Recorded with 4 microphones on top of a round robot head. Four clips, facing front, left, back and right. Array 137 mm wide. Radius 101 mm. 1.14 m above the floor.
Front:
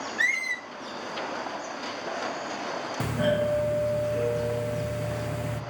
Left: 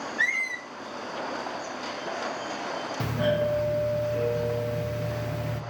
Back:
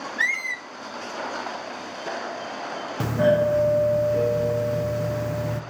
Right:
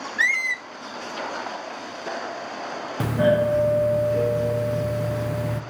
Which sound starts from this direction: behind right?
A doorbell, at 3.0 s.